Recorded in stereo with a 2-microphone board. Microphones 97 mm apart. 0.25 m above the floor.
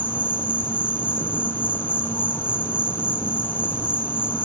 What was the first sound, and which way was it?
An insect, 20° left (ahead or behind).